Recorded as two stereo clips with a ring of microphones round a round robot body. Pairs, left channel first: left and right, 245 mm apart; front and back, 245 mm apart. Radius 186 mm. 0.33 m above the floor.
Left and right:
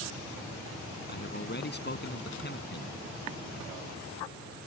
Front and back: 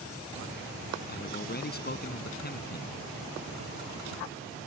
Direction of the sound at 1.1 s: 45° left.